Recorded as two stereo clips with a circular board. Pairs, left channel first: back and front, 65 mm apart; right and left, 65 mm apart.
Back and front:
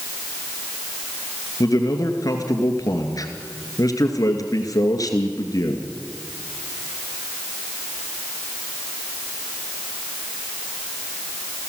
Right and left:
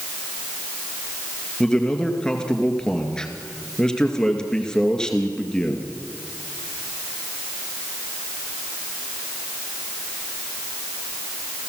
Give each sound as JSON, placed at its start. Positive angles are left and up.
{"t": 1.6, "sound": "a man speaking", "azimuth_deg": -170, "distance_m": 2.5}